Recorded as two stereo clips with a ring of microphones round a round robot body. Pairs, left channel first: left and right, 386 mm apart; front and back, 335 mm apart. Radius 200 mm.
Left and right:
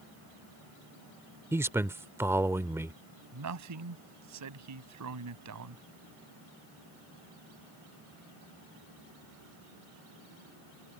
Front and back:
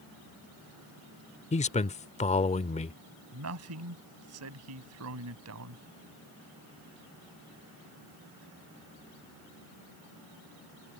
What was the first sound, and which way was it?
A man speaking, 20° right.